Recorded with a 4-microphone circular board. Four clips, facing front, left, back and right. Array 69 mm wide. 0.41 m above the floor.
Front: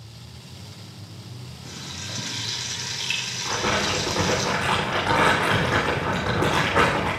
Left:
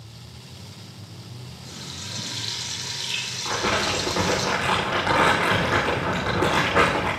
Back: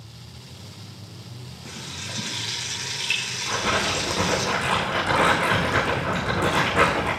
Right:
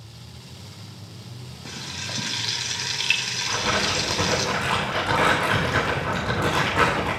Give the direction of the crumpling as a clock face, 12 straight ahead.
10 o'clock.